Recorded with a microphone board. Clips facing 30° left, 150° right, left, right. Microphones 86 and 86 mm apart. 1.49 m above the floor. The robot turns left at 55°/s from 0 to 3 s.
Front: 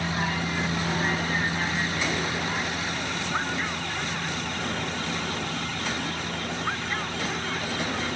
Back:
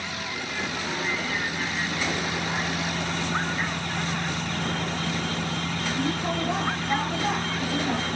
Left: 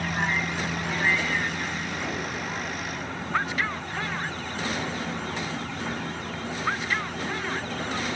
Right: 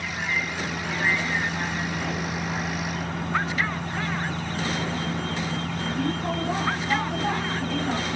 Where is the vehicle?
50° left; by 8.2 s 115° right.